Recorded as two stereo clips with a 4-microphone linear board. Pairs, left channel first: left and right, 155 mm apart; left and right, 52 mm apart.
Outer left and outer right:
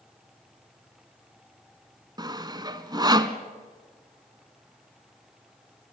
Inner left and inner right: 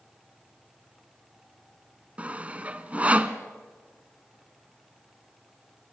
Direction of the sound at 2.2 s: 25° right (ahead or behind).